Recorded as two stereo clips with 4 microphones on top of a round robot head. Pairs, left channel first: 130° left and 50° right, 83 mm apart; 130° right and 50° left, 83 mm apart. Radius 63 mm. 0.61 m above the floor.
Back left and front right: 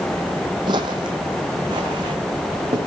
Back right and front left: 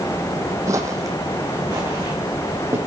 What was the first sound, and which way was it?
Footsteps, 10° right.